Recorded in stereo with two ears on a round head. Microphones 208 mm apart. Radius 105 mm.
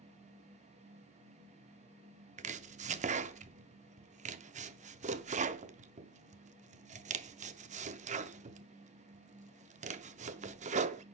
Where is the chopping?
30° right (ahead or behind), 0.5 m.